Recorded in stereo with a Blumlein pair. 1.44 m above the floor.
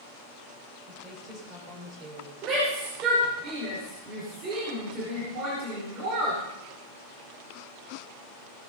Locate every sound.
0.9 s a woman speaking: 15° right, 6 m
2.4 s a shout: 30° right, 5 m